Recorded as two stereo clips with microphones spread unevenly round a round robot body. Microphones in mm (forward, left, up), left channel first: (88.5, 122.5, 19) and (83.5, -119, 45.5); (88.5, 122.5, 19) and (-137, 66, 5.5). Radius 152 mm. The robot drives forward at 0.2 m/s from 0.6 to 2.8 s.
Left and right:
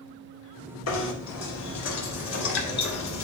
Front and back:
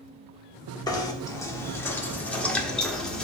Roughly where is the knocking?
Left.